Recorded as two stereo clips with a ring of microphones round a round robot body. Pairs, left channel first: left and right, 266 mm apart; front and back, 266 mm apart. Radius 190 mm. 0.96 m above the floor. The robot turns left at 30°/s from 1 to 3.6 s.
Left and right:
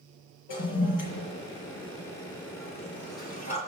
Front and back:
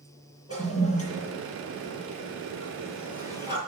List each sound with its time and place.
0.5 s a toilet flushing: 100° left, 5.5 m; by 3.6 s 20° left, 5.5 m